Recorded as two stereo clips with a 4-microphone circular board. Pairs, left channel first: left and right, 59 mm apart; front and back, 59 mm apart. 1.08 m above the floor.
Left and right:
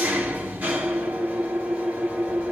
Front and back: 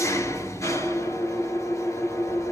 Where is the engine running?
25° right, 3 m.